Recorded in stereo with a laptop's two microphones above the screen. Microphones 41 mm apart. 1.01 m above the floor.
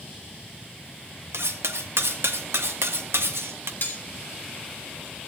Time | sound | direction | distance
1.3 | cutlery clinking | 85° right | 0.7 m
3.8 | cutlery clinking | 55° left (ahead or behind) | 1.9 m